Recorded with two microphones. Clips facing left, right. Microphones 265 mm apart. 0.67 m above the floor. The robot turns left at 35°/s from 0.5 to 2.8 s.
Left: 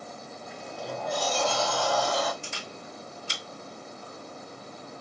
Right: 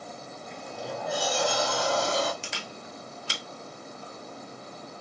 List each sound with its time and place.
0.5 s a sliding door: 10° left, 0.6 m; by 2.3 s 55° right, 0.6 m
2.4 s a camera shutter: 80° right, 0.8 m; by 3.4 s 70° right (ahead or behind), 0.8 m